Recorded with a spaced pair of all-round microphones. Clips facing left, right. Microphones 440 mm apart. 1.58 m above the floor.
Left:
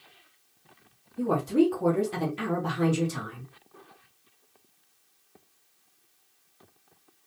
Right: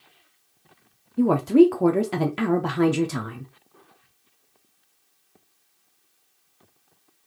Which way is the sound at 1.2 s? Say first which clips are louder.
Right 8 dB; 80° right.